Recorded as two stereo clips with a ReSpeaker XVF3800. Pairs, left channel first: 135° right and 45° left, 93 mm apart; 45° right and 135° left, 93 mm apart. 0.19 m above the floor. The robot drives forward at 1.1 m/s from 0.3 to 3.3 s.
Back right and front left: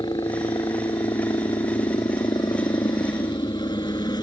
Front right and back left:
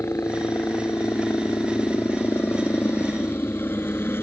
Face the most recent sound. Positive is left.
turn(degrees=-105)